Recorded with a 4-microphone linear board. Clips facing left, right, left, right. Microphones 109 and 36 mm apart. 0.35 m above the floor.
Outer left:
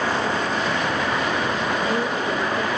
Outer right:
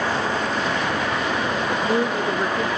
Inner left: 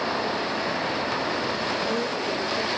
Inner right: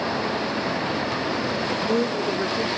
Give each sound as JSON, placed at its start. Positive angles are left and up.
{"t": 1.7, "sound": "a man speaking", "side_deg": -20, "distance_m": 0.9}